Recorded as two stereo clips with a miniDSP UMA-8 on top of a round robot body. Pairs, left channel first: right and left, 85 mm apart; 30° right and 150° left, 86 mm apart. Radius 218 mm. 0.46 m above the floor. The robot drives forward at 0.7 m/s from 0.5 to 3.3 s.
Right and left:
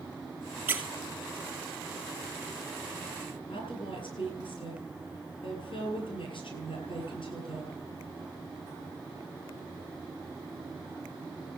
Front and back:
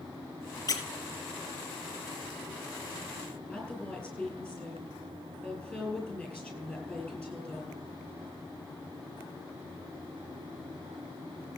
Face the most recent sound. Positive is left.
turn(degrees=-110)